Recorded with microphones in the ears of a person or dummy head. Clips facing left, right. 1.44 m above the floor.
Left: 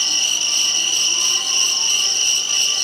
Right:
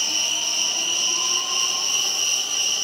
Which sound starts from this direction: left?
An insect, at 0.0 s.